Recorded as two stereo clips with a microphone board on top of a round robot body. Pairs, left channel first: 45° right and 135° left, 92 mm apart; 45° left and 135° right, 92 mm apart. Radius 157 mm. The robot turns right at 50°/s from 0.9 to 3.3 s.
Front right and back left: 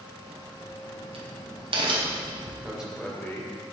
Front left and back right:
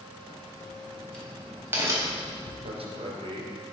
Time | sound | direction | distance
0.2 | a crack | 115° left | 3.5 m
2.6 | a man speaking | 150° right | 3 m